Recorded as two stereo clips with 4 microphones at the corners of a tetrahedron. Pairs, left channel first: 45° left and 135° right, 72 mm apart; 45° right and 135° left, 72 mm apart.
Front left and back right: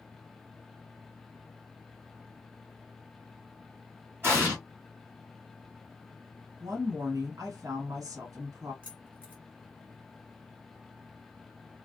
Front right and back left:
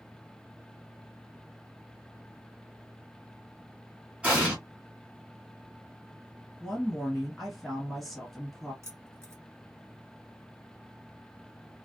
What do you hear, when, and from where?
4.2 s an explosion: 170° right, 1.9 m
6.6 s a woman speaking: 135° right, 1.7 m
8.8 s keys jangling: 160° left, 1.2 m